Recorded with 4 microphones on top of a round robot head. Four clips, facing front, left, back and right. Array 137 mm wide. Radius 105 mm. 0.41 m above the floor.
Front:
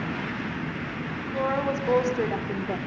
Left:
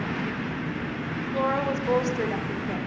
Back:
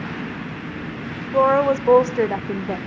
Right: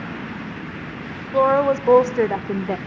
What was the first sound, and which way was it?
A woman speaking, 140° right.